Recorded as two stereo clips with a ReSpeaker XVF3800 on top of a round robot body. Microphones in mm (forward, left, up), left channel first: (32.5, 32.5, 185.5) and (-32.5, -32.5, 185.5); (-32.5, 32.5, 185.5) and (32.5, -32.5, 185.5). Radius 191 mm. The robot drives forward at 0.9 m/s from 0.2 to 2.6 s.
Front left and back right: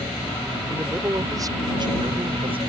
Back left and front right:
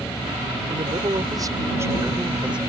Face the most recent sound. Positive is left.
turn(degrees=-125)